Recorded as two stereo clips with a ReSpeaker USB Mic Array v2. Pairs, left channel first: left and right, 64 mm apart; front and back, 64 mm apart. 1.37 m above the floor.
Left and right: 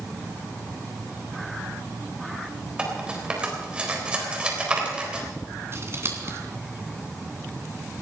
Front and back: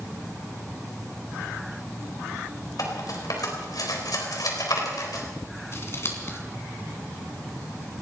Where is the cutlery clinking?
15° right, 4 m.